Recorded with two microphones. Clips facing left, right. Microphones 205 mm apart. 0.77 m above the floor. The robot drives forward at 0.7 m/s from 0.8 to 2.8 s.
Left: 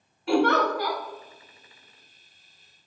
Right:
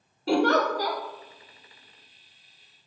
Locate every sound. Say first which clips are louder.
0.3 s a giggle: even; 35° right (ahead or behind), 0.6 m; by 1.0 s 40° right (ahead or behind), 0.6 m